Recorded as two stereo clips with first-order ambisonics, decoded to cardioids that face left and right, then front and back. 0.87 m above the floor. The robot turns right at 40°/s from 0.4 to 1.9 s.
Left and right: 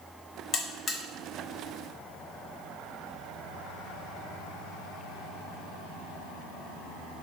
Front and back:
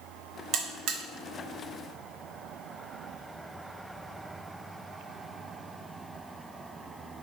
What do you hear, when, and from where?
0.5 s a buzzer: 140° left, 0.5 m; by 1.0 s 160° left, 0.5 m